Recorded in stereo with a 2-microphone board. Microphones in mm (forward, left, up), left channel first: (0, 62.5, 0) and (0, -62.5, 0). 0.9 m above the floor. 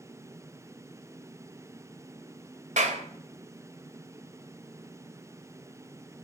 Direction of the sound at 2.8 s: 85° right.